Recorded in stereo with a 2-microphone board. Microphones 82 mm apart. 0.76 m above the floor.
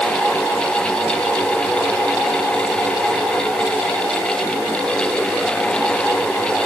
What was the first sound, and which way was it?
Only background noise.